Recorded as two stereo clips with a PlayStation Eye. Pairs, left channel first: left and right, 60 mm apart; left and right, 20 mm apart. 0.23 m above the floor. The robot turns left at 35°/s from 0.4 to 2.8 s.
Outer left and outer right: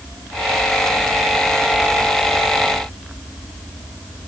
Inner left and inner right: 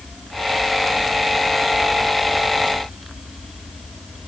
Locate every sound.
Only background noise.